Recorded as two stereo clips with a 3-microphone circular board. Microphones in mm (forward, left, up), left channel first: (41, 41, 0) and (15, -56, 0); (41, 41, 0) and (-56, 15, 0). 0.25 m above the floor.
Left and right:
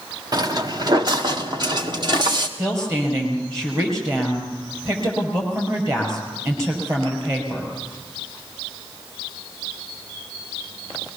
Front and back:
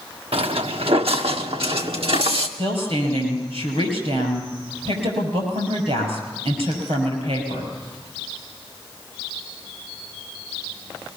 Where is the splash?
No splash in this recording.